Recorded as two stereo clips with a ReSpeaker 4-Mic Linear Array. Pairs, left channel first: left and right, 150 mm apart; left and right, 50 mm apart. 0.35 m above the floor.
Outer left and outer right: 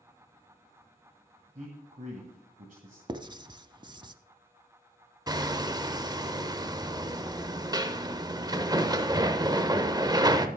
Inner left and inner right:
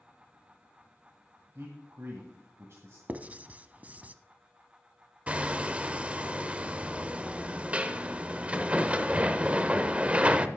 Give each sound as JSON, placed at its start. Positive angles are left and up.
{"t": 1.6, "sound": "a man speaking", "side_deg": -60, "distance_m": 1.7}
{"t": 3.1, "sound": "writing", "side_deg": -30, "distance_m": 0.6}
{"t": 5.3, "sound": "hammering", "side_deg": -25, "distance_m": 0.7}